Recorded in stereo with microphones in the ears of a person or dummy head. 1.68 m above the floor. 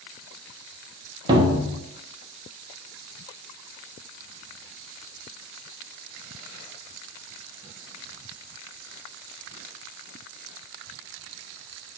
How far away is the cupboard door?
About 0.9 m.